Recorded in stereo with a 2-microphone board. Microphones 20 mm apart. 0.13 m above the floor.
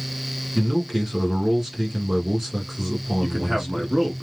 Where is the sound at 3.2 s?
20° right (ahead or behind), 1.3 m.